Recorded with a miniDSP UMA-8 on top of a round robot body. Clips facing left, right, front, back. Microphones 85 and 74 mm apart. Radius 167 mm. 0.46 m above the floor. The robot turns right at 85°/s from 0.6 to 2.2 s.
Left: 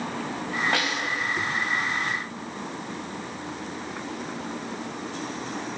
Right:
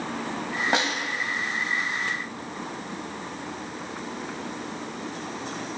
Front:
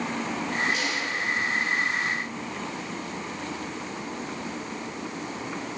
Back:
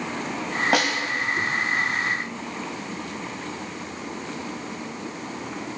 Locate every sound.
0.7 s a snare drum: 160° right, 1.7 m; by 1.0 s 135° right, 1.7 m